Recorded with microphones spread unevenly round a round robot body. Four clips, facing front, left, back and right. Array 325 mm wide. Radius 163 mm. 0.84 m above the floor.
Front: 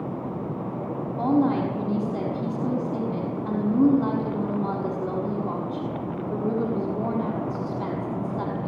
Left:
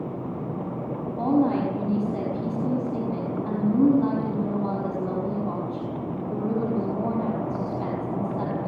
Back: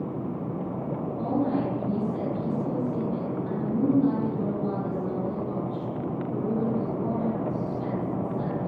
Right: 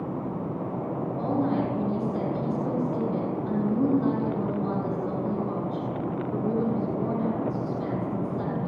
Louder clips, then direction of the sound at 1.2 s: Left 5 dB, front 5 dB; 40° left.